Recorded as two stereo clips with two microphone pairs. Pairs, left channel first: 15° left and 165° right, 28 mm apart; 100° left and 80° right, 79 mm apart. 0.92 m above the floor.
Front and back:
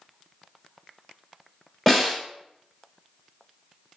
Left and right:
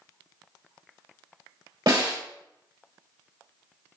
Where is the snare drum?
80° right, 1.5 m.